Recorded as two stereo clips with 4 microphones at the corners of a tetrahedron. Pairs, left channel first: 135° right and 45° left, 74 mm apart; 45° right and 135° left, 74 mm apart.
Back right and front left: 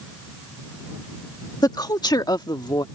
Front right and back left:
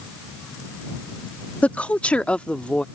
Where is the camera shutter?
No camera shutter in this recording.